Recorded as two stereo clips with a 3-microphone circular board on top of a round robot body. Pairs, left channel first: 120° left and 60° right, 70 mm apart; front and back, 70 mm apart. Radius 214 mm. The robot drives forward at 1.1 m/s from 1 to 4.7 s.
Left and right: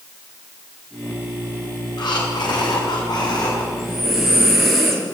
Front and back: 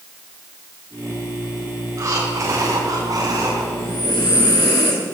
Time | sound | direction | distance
2.0 | breathing | 130° left | 4.5 m
3.7 | breathing | 25° left | 6.5 m